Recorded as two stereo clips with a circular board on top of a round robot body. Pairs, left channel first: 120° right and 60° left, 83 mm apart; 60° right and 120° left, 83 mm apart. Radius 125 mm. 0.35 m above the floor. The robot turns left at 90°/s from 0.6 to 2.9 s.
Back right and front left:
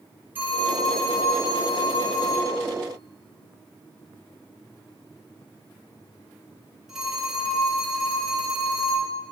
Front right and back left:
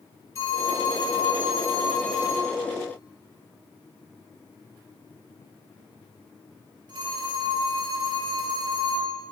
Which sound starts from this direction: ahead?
A phone ringing, at 0.3 s.